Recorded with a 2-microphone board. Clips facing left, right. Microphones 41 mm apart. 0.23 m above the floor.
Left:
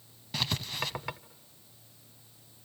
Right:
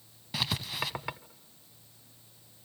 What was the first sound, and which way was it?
Writing, 5° right (ahead or behind).